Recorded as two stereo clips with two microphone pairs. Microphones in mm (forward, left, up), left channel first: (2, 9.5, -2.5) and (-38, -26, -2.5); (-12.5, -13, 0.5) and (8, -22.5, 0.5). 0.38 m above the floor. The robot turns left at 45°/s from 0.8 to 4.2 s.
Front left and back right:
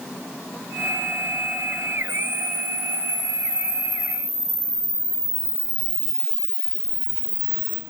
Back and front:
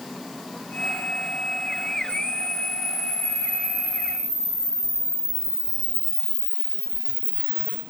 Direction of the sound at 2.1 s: 35° right.